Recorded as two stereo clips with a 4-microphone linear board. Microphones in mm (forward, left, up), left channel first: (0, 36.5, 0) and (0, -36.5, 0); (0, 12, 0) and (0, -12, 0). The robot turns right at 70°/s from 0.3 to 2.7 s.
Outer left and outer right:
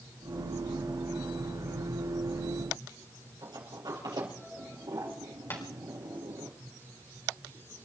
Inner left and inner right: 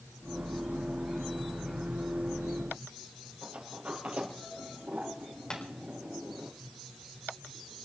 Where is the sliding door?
75° right (ahead or behind), 5 m.